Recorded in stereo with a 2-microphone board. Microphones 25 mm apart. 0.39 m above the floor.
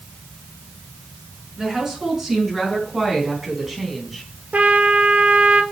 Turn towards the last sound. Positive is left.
turn(degrees=-75)  # may be behind; listen again after turning